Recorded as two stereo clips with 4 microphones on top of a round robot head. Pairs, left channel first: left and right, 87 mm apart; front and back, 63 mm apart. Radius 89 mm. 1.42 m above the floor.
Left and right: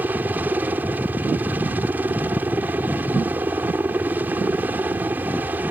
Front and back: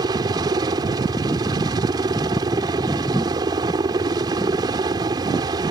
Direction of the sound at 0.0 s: 160° right.